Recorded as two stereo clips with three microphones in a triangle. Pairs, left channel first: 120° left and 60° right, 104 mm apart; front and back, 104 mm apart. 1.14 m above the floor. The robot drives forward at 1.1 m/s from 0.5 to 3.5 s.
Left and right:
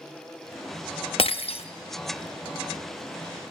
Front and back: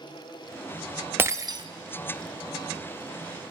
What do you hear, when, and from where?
1.2 s breaking glass: 110° left, 0.8 m; by 1.6 s 140° left, 1.0 m